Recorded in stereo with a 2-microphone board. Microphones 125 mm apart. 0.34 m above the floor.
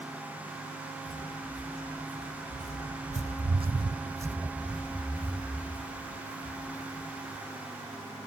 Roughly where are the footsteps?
Right.